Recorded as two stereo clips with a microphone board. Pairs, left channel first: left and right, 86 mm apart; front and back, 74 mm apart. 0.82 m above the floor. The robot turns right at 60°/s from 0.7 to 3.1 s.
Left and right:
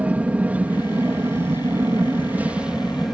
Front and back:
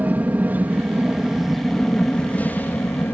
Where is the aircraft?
140° right; by 3.1 s straight ahead.